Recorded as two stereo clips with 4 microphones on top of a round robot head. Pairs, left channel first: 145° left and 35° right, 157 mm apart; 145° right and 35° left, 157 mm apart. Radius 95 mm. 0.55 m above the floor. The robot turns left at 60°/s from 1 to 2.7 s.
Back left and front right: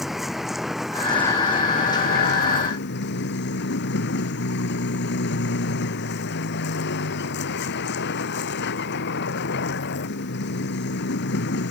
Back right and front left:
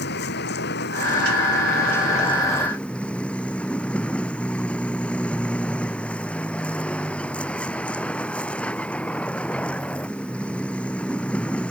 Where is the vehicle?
125° right; by 11.7 s 135° left.